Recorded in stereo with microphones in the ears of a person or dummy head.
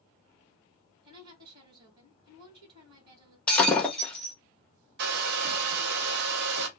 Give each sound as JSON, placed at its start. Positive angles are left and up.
{"t": 1.0, "sound": "a woman speaking", "side_deg": -25, "distance_m": 1.4}
{"t": 3.5, "sound": "breaking glass", "side_deg": 15, "distance_m": 1.0}
{"t": 5.0, "sound": "a hair dryer", "side_deg": -55, "distance_m": 0.7}